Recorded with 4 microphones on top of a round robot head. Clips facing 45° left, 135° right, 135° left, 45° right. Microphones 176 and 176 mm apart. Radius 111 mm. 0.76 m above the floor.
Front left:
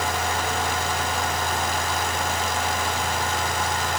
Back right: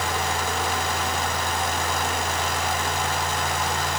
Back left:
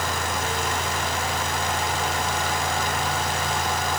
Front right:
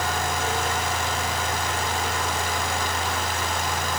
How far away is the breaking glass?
No breaking glass in this recording.